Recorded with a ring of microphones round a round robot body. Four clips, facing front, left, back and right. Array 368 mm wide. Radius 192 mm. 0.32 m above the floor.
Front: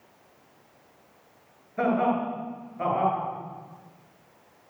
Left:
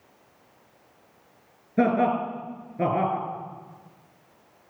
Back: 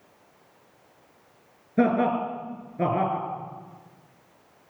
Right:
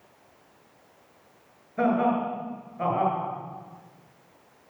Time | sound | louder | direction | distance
1.8 | laughter | left 2 dB, back 2 dB | 135° left | 5.5 m